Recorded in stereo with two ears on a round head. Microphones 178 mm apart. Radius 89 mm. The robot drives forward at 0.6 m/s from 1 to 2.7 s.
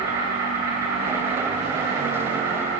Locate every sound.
0.0 s an insect: 15° right (ahead or behind), 10 m